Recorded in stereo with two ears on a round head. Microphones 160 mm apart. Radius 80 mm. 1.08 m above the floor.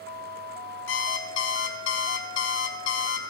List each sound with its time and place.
0.9 s an alarm clock: 75° left (ahead or behind), 1.9 m